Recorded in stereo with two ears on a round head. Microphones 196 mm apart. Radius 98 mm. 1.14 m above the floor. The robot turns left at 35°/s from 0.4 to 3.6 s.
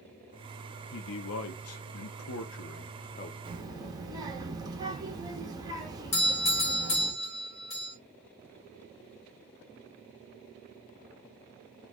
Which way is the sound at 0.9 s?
120° left.